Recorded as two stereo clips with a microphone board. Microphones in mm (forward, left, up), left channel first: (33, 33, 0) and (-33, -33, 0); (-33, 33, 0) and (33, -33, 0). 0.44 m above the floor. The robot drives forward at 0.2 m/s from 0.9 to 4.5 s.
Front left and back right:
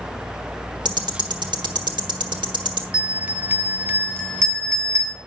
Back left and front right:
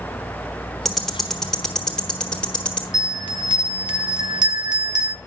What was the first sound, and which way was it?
Ticking, 135° right.